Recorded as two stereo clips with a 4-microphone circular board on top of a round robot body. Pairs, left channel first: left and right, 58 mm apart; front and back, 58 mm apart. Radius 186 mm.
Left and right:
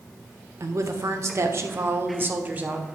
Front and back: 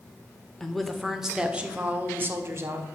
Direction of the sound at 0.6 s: 80° right.